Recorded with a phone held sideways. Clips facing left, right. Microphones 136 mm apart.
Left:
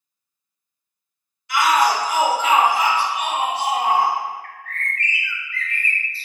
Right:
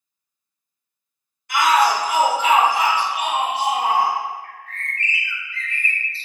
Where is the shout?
50° right (ahead or behind), 1.2 m; by 4.1 s 60° right (ahead or behind), 2.5 m.